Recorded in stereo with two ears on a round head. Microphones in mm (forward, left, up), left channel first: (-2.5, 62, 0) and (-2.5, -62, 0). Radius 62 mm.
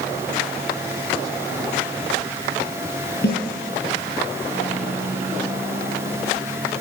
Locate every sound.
3.2 s a snare drum: 80° left, 6 m